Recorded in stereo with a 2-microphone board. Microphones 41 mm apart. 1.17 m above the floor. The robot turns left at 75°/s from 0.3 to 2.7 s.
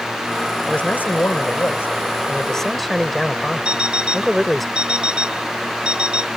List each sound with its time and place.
0.7 s a man speaking: 155° left; by 4.7 s straight ahead
3.6 s an alarm clock: 25° right (ahead or behind)